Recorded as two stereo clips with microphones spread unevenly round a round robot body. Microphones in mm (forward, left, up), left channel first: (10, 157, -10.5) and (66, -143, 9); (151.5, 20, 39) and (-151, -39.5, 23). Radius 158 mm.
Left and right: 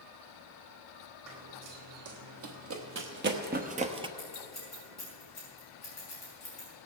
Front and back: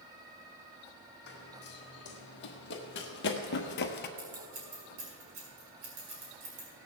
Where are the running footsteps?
45° right, 2 m; by 4.1 s 20° right, 0.8 m.